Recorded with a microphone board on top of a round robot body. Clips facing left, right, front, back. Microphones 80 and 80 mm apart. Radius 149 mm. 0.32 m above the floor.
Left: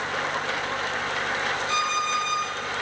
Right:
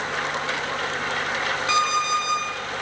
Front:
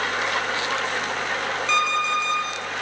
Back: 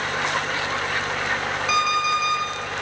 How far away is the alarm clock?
About 2 m.